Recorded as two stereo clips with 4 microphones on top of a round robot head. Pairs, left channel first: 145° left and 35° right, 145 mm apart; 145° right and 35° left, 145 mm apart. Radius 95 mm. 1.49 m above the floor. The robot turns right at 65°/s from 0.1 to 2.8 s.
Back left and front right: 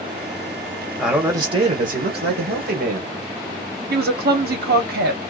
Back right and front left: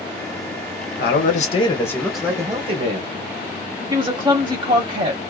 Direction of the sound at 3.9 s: 20° right.